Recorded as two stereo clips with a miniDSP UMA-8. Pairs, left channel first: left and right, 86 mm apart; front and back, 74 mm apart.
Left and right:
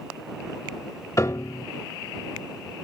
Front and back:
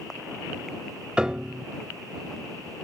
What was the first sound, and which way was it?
A piano, 110° left.